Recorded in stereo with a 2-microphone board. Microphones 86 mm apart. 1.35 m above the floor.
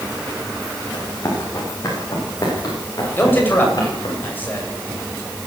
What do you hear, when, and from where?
0.9 s running footsteps: 40° left (ahead or behind), 10 m; by 4.2 s 50° left (ahead or behind), 13.5 m
3.2 s a man speaking: 25° left (ahead or behind), 8 m